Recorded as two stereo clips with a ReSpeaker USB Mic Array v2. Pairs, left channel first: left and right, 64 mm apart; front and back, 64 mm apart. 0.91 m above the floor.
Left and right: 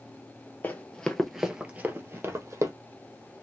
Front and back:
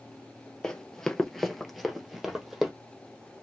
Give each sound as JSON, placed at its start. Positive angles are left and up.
{"t": 0.6, "sound": "running footsteps", "azimuth_deg": 70, "distance_m": 1.0}